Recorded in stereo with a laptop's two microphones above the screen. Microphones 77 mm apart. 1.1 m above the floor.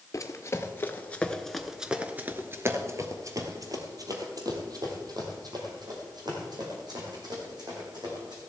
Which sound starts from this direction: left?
Running footsteps, at 0.1 s.